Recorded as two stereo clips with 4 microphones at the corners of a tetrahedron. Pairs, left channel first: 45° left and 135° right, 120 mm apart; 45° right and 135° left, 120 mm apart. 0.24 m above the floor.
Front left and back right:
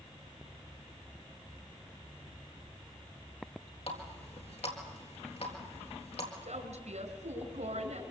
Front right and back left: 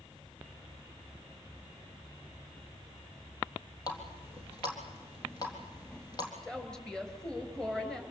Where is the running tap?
10° left, 3.5 m.